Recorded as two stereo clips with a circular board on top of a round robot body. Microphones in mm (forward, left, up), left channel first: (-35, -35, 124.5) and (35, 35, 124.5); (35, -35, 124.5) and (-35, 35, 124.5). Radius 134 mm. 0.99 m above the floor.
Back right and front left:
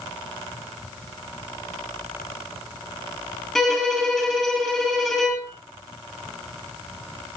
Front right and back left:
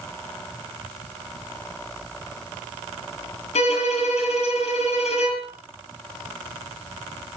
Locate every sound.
3.5 s a violin: 45° right, 7.5 m